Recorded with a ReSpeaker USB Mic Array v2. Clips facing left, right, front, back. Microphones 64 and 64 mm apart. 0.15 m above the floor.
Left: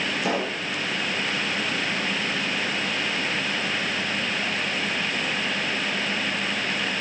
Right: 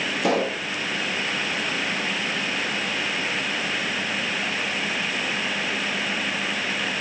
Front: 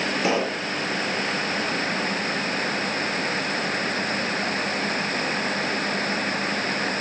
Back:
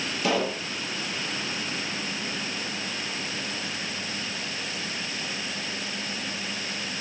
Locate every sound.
0.2 s a pop: 65° right, 2 m